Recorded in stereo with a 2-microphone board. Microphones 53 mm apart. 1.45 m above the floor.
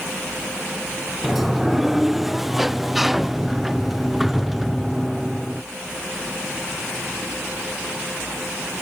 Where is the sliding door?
Centre (ahead or behind).